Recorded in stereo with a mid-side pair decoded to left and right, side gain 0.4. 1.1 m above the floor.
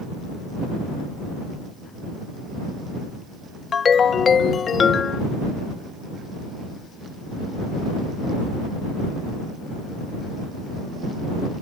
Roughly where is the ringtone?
Ahead left.